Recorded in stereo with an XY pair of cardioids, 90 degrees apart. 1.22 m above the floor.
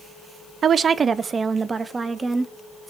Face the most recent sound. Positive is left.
turn(degrees=-30)